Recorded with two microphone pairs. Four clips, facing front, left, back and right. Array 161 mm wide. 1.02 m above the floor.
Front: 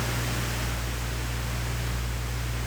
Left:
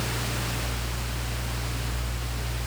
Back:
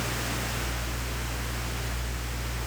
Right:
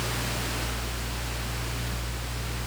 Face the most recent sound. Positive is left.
No sound to turn to.